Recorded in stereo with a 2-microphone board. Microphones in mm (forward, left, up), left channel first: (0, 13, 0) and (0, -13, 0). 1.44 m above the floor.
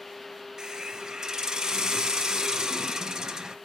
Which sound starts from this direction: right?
A hiss, at 0.6 s.